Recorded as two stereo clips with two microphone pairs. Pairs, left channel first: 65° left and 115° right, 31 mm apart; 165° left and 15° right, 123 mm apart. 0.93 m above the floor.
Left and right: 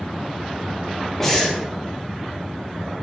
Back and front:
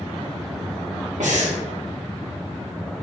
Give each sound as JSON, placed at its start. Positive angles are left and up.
{"t": 1.2, "sound": "breathing", "azimuth_deg": -10, "distance_m": 2.0}